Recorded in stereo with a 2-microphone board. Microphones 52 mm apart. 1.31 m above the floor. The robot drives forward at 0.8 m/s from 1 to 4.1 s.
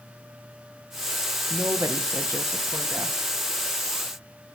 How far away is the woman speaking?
About 1.2 m.